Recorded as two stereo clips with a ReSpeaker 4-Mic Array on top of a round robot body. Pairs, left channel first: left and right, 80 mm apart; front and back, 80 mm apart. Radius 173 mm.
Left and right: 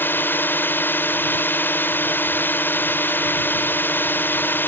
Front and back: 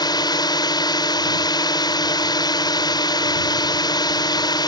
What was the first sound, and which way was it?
A drone, 25° left.